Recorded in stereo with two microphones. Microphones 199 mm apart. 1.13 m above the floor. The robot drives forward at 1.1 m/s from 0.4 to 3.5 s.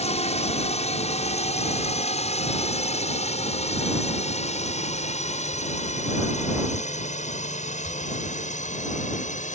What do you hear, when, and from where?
0.0 s a drone: 30° left (ahead or behind); by 9.5 s 40° left (ahead or behind)